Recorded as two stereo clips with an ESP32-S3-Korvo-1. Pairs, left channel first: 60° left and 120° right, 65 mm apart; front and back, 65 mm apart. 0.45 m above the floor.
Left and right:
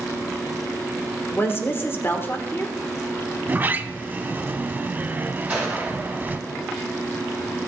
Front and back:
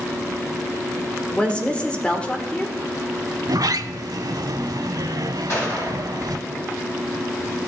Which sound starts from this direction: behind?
A sliding door, at 3.4 s.